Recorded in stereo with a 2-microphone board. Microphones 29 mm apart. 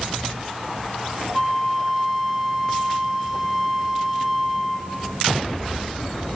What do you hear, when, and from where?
1.3 s a flute: 5° right (ahead or behind), 1.3 m